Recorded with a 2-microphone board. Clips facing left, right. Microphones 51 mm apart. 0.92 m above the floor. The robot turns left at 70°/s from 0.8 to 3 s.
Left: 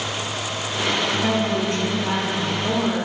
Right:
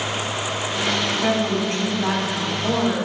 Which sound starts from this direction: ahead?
A woman speaking, at 1.1 s.